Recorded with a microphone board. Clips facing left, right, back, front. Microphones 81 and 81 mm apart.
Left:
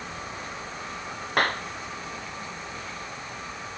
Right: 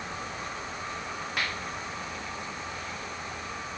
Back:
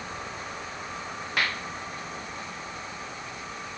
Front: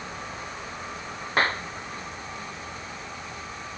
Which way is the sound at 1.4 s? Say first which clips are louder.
Left 10 dB, front 5 dB; 55° left.